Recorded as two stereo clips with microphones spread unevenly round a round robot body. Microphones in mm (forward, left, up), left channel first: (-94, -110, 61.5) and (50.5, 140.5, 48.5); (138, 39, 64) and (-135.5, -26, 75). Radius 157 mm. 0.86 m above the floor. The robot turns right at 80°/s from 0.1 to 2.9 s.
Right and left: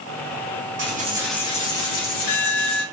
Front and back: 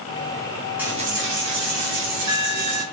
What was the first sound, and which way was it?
A dropped coin, 110° left.